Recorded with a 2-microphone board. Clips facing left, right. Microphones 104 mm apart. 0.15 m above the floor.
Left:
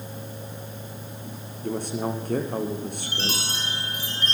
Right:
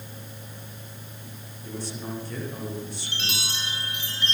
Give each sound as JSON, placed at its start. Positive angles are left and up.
{"t": 1.6, "sound": "a man speaking", "side_deg": 55, "distance_m": 8.0}
{"t": 3.1, "sound": "a chime", "side_deg": 40, "distance_m": 9.5}